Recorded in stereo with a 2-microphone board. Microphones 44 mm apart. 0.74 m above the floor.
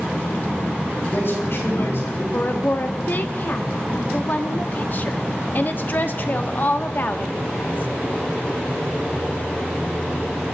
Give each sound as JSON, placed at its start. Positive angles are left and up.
{"t": 1.0, "sound": "a man speaking", "side_deg": 60, "distance_m": 6.5}
{"t": 2.3, "sound": "a woman speaking", "side_deg": 40, "distance_m": 1.0}